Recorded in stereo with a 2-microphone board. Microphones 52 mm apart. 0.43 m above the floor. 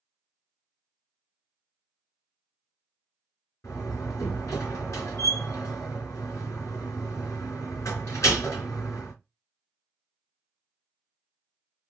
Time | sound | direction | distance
3.6 | a door slam | 65° left (ahead or behind) | 3.5 m